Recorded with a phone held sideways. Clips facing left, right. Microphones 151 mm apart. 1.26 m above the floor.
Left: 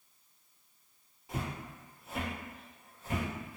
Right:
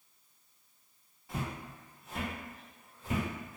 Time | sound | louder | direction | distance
1.3 | footsteps | even | 20° left (ahead or behind) | 1.6 m